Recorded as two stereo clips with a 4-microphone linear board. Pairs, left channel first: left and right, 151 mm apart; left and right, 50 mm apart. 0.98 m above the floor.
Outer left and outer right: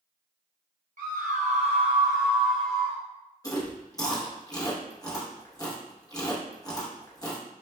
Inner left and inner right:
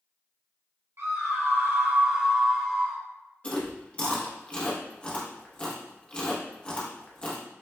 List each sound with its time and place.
1.0 s a scream: 60° right (ahead or behind), 1.2 m; by 3.0 s 15° left (ahead or behind), 1.1 m
3.4 s chewing: 25° left (ahead or behind), 0.9 m